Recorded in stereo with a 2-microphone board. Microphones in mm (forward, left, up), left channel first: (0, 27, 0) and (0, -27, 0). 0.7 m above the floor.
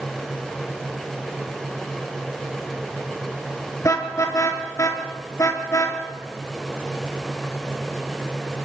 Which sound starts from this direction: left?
A car horn, at 3.8 s.